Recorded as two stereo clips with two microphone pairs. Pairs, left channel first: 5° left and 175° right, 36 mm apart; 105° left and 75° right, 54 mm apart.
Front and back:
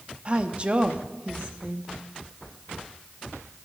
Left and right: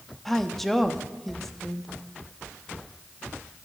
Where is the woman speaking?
175° right, 0.8 m.